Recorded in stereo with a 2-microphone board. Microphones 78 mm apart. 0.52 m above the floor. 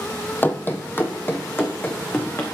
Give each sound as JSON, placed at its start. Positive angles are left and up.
{"t": 0.4, "sound": "running footsteps", "side_deg": 25, "distance_m": 0.7}